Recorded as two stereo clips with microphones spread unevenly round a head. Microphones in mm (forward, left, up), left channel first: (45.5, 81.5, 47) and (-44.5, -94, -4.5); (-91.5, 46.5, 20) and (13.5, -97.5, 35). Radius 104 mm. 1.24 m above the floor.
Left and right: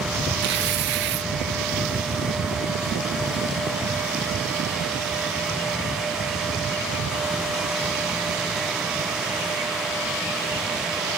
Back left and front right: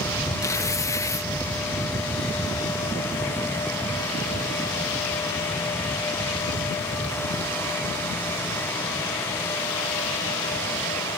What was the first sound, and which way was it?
Tearing paper, 160° right.